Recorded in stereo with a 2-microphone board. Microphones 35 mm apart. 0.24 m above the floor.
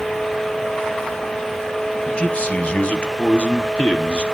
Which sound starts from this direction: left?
A man speaking, at 2.1 s.